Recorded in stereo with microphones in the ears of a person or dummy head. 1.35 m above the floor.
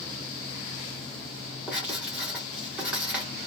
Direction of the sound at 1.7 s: Centre (ahead or behind).